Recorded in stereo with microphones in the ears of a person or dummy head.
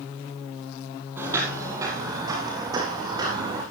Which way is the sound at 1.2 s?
15° right (ahead or behind).